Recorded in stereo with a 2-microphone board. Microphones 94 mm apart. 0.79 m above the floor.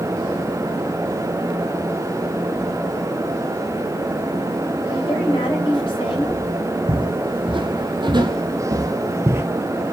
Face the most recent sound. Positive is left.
turn(degrees=-25)  # may be behind; listen again after turning